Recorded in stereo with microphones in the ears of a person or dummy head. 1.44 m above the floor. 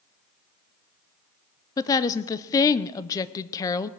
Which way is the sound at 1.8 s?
20° left (ahead or behind).